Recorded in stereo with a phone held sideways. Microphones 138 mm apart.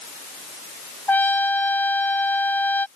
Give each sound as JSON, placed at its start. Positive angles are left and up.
{"t": 1.1, "sound": "a trumpet", "side_deg": 15}